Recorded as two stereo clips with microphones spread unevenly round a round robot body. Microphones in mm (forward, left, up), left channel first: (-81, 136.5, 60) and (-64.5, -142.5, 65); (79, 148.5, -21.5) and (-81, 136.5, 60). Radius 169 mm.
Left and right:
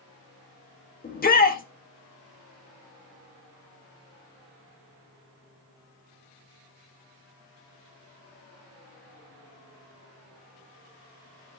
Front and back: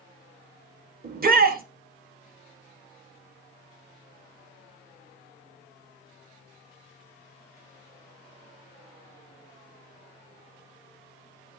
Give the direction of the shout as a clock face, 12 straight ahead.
7 o'clock.